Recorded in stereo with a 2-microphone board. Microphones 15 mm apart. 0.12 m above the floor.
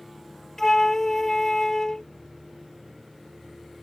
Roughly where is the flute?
Left.